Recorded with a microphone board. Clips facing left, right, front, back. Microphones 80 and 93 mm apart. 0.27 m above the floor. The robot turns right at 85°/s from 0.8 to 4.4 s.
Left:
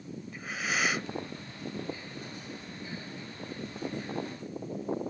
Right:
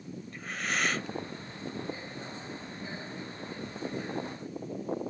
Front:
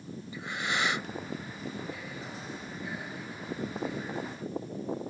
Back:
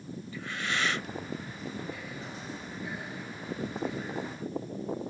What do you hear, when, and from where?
0.3 s breathing: 20° left; by 1.1 s 40° left